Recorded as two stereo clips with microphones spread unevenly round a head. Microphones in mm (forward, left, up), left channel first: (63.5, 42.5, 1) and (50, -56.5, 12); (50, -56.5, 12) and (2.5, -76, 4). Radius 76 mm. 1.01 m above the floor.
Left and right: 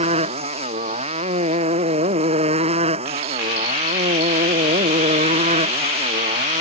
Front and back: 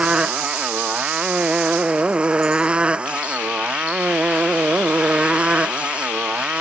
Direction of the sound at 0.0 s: 90° right.